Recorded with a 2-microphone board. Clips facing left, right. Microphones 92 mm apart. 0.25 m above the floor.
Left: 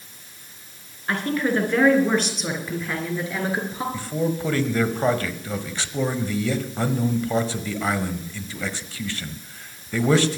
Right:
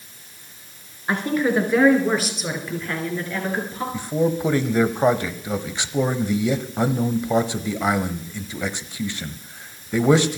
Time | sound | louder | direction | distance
1.1 | a woman speaking | right 2 dB | 20° right (ahead or behind) | 3.5 m
3.9 | a man speaking | right 6 dB | 20° right (ahead or behind) | 0.9 m